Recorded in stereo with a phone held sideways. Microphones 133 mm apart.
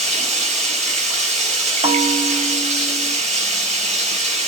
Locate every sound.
0.0 s running water: 55° right (ahead or behind), 2.0 m
1.8 s a bell: 50° right (ahead or behind), 0.8 m